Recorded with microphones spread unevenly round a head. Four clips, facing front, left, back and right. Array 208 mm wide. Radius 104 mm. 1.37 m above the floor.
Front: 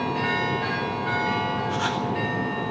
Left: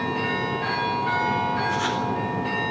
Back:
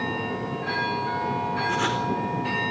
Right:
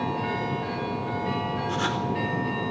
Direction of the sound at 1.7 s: 155° right.